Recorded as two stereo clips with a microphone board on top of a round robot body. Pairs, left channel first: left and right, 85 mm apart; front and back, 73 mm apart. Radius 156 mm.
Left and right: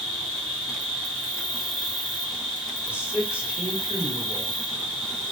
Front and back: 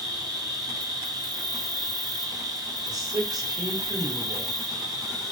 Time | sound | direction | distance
0.0 | an insect | straight behind | 1.7 m
2.9 | a man speaking | 165° right | 1.6 m